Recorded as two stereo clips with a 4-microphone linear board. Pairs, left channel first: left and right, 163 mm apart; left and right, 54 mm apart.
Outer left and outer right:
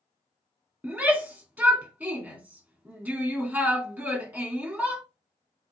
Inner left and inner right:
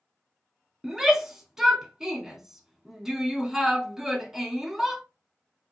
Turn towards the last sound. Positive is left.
turn(degrees=-10)  # may be behind; listen again after turning